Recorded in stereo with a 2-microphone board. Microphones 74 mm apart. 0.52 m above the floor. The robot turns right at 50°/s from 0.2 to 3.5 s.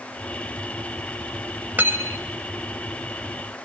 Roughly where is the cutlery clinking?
Right.